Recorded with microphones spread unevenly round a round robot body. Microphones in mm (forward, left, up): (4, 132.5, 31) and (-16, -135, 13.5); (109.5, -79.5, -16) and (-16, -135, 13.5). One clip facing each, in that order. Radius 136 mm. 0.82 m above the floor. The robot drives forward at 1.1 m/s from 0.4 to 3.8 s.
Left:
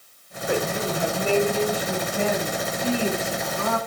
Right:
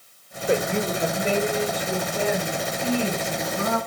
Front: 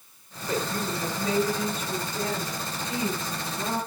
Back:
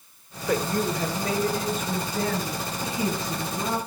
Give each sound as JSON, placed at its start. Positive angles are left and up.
{"t": 0.5, "sound": "a woman speaking", "azimuth_deg": -160, "distance_m": 2.5}